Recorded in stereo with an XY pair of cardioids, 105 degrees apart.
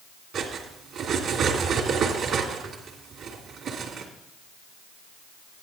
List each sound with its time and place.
0.3 s cutlery clinking: 70° right, 2.5 m